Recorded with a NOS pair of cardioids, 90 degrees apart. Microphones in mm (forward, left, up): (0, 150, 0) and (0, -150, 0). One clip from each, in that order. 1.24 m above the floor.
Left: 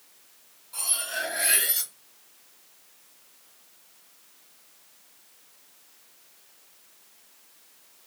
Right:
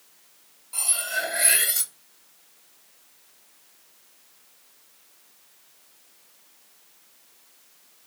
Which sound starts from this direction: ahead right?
Cutlery clinking, at 0.7 s.